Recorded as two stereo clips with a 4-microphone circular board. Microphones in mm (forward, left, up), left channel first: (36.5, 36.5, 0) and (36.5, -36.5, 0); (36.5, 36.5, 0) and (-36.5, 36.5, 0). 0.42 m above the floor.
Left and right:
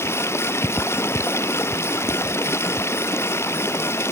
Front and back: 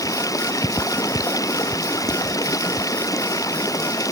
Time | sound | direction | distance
0.0 | running water | 35° left | ?